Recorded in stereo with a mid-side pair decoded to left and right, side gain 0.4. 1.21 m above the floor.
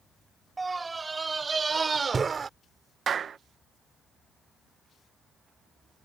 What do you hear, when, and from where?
0.6 s a scream: 25° right; by 2.5 s 45° right
3.1 s a clap: 55° right